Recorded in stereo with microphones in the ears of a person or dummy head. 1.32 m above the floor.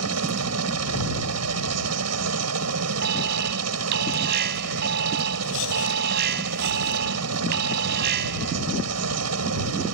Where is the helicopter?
80° right.